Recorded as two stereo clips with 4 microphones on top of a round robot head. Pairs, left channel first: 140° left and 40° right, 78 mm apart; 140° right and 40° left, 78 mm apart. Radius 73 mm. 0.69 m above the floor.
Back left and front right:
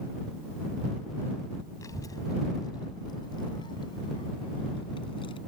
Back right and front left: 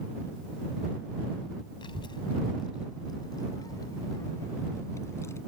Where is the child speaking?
165° right; by 5.4 s 160° left.